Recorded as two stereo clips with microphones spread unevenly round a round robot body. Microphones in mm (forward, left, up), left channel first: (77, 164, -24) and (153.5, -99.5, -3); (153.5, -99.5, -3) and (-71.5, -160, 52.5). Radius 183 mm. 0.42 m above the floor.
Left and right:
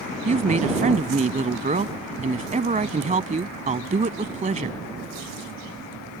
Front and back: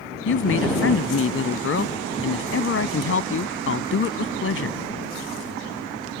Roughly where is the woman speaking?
Ahead.